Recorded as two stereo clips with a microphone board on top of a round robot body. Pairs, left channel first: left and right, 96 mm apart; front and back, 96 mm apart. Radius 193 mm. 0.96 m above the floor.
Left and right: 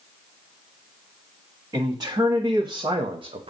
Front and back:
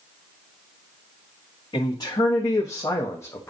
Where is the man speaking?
40° right, 2 m; by 3.5 s 70° right, 0.9 m.